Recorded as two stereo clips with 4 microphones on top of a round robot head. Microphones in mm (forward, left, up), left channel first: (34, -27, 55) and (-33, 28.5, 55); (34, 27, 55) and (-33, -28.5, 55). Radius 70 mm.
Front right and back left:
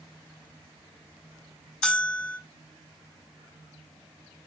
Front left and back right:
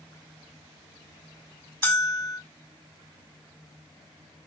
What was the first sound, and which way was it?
A bell, 30° left.